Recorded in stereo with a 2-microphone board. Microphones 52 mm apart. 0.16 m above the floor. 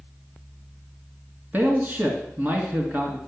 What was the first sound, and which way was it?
A man speaking, 35° right (ahead or behind).